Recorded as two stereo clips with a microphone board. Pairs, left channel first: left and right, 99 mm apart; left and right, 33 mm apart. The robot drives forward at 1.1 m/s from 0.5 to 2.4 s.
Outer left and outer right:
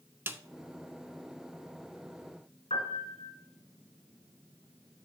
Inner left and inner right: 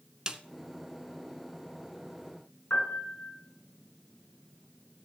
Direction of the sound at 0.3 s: 25° right (ahead or behind).